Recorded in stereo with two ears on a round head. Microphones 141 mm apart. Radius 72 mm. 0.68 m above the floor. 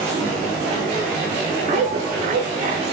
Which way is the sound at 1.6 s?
45° right (ahead or behind).